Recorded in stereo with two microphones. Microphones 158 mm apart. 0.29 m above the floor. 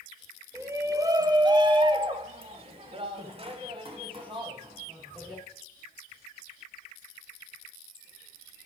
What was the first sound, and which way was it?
A shout, 15° right (ahead or behind).